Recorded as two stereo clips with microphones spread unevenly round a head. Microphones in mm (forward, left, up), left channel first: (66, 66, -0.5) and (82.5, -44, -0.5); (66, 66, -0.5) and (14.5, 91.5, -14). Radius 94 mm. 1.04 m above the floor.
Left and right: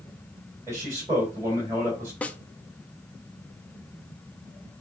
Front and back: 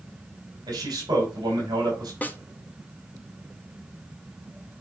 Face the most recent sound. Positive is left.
turn(degrees=30)